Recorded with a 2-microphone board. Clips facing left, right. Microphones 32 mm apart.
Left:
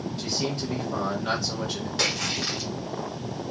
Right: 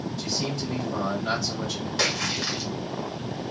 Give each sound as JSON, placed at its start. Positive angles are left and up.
{"t": 0.2, "sound": "a man speaking", "side_deg": 20, "distance_m": 1.4}
{"t": 2.0, "sound": "a splash", "side_deg": 0, "distance_m": 1.4}